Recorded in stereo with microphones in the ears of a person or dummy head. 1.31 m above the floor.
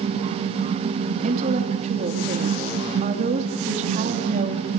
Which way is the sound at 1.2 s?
40° right (ahead or behind).